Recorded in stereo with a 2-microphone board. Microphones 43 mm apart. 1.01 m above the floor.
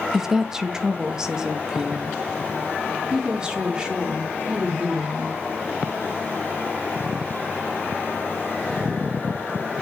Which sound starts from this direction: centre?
A woman speaking, at 0.1 s.